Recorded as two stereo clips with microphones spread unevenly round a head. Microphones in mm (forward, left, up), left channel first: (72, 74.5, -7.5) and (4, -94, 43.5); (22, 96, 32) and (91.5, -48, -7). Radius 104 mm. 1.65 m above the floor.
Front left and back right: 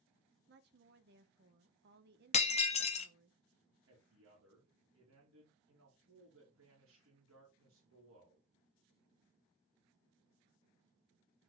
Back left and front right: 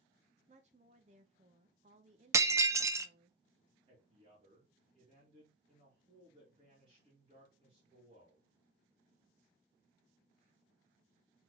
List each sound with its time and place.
0.5 s a woman speaking: 130° right, 1.0 m
2.3 s breaking glass: 15° left, 0.8 m
3.9 s a man speaking: 135° right, 2.5 m